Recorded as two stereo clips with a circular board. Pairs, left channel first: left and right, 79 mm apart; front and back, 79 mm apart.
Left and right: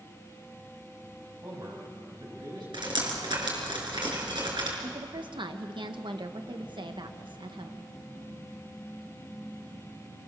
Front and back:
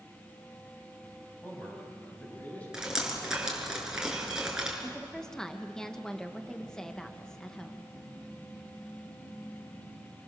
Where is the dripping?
100° right, 6 m.